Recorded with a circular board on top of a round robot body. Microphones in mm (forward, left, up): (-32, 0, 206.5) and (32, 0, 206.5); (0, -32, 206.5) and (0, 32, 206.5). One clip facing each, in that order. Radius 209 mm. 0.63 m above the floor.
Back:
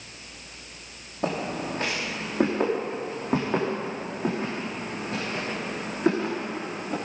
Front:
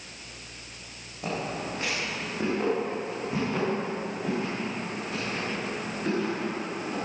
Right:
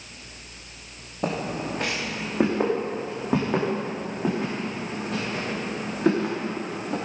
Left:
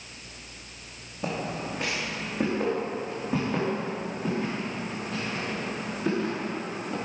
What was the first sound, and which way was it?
Footsteps, 130° right.